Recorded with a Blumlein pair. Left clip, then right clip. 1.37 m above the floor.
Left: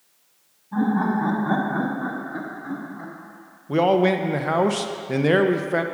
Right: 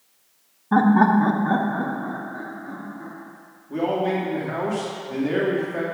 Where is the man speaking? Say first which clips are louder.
Left 5 dB; 45° left, 0.7 m.